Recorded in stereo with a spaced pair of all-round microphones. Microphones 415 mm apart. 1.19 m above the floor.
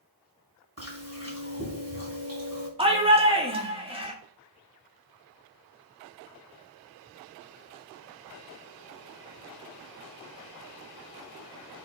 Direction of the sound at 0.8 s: 35° right (ahead or behind).